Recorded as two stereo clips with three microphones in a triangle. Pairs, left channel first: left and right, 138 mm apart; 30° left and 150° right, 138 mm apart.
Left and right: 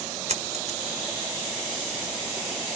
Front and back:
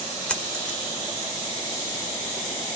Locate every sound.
0.3 s a dropped coin: 50° right, 1.6 m